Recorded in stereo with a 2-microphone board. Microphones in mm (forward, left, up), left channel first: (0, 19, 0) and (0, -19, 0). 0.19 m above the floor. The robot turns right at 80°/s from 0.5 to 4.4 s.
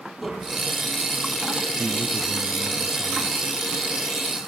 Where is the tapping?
5° right (ahead or behind), 5.5 m; by 0.6 s 10° right (ahead or behind), 5.5 m.